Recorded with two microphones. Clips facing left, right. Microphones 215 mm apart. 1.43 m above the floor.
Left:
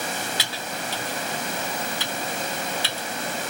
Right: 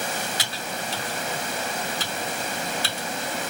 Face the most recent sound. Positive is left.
turn(degrees=-45)  # may be behind; listen again after turning